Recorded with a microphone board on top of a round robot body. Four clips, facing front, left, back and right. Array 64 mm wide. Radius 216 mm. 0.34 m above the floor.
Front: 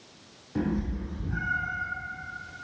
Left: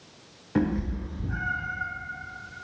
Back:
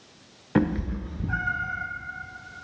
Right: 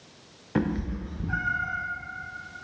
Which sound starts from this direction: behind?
A cat meowing, at 0.6 s.